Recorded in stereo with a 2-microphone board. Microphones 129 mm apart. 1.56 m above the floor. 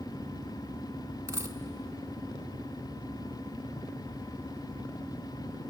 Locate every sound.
1.3 s a dropped coin: 20° right (ahead or behind), 1.5 m